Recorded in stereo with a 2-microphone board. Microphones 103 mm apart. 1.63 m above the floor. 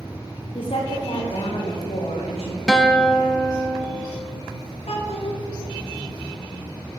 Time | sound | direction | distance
0.6 | a woman speaking | 60° left (ahead or behind) | 1.0 m
2.7 | a guitar | centre (ahead or behind) | 0.7 m
4.9 | a child speaking | 80° left | 2.0 m